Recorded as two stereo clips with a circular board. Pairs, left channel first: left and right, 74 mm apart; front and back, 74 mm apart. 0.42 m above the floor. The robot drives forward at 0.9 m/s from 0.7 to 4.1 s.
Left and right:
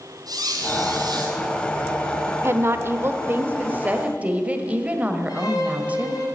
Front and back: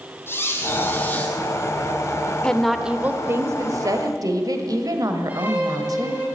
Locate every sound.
0.3 s a squeak: 60° right, 2.5 m; by 1.4 s 75° right, 2 m
2.4 s a woman speaking: 70° right, 0.9 m; by 6.2 s 160° right, 1.6 m
5.3 s a violin: 110° left, 3.5 m